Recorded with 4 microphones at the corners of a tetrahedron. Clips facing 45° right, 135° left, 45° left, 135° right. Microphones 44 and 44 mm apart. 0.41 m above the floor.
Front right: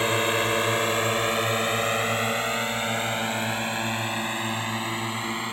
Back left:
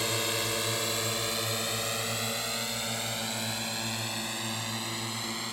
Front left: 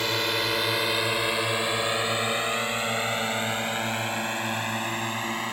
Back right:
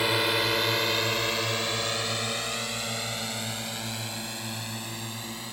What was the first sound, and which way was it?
A drone, 55° right.